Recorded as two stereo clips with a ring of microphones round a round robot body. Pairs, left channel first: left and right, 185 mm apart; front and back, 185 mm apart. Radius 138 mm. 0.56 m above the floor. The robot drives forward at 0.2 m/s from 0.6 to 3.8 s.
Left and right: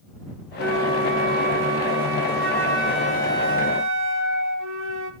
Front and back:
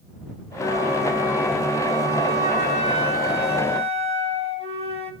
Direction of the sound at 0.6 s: 95° right.